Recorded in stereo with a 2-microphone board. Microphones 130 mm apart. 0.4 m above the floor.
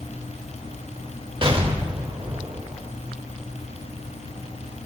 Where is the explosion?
40° right (ahead or behind), 1.2 m.